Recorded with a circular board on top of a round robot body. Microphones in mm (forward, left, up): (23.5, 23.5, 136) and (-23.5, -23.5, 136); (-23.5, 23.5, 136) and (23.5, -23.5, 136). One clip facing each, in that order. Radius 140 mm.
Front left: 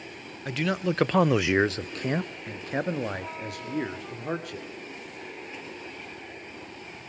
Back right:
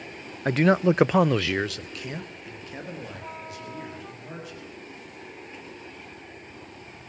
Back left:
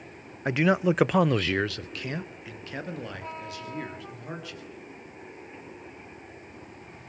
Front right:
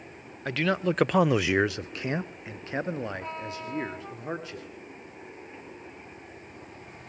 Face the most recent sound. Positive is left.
turn(degrees=15)